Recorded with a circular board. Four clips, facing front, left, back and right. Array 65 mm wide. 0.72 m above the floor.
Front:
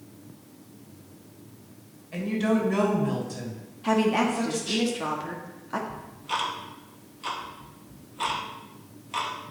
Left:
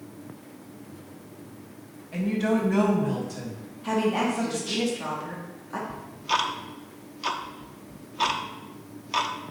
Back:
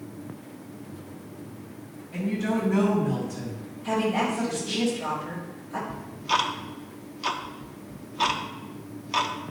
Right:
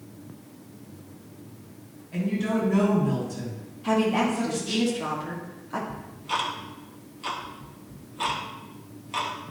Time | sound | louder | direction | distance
2.1 | a woman speaking | left 2 dB, front 2 dB | 15° left | 3.5 m
3.8 | a woman speaking | right 2 dB, front 2 dB | 5° right | 1.4 m
5.9 | ticking | left 3 dB, back 5 dB | 135° left | 0.7 m